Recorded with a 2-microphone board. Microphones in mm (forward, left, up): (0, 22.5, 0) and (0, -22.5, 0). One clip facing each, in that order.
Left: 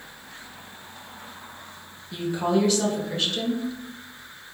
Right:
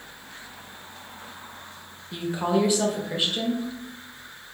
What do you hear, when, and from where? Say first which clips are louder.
2.1 s a woman speaking: left 1 dB; 15° right (ahead or behind), 0.5 m